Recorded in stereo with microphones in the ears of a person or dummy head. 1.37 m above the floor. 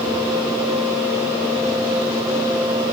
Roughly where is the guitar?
I don't hear a guitar.